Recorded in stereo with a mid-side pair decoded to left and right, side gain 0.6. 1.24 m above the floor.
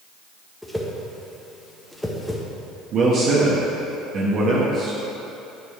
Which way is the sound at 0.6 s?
5° left.